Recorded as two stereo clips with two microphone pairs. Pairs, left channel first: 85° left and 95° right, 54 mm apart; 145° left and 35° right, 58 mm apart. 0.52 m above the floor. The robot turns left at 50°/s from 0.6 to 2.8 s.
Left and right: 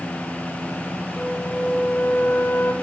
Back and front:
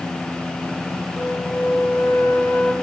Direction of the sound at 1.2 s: 150° left.